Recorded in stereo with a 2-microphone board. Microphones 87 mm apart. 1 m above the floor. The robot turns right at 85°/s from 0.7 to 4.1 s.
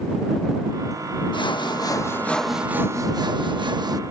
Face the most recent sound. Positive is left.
turn(degrees=-40)